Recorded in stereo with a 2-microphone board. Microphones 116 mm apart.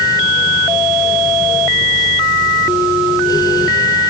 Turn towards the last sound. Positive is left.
No sound to turn to.